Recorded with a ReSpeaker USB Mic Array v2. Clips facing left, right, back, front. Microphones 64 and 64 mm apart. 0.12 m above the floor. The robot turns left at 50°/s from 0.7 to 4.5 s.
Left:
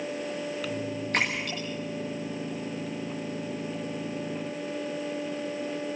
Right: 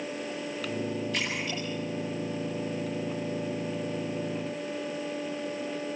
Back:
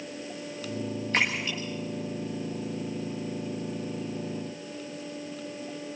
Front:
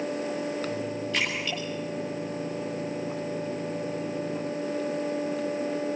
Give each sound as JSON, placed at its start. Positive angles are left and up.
{"t": 1.1, "sound": "a splash", "azimuth_deg": 130, "distance_m": 6.0}